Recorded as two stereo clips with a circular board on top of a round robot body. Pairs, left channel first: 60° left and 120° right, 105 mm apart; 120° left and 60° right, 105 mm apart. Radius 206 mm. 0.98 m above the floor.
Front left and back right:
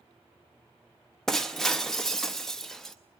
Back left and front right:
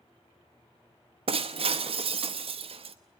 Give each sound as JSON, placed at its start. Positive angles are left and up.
{"t": 1.3, "sound": "breaking glass", "azimuth_deg": -25, "distance_m": 0.8}